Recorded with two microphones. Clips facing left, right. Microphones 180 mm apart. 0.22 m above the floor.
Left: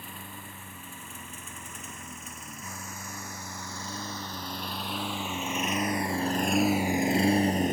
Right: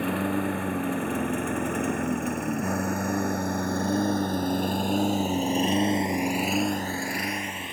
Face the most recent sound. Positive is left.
turn(degrees=45)  # may be behind; listen again after turning